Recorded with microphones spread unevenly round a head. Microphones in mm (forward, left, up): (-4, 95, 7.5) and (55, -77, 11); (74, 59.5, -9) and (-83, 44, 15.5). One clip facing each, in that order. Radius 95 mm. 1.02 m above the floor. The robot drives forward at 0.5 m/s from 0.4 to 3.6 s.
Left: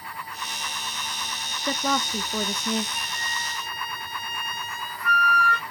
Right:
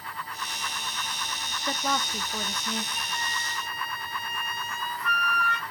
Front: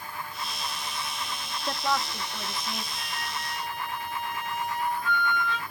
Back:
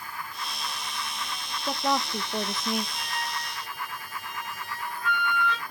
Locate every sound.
1.6 s a woman speaking: 95° left, 0.6 m; by 2.9 s 140° left, 0.9 m
3.0 s a flute: 165° left, 2.5 m; by 5.6 s 170° left, 3 m